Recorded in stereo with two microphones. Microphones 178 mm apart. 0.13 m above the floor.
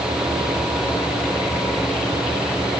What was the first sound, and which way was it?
Only background noise.